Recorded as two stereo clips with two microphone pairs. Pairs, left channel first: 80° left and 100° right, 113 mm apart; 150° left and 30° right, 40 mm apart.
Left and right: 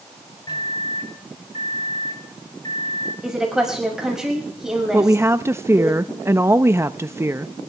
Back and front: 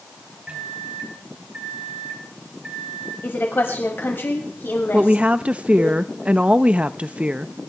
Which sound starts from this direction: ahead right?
A woman speaking, at 4.9 s.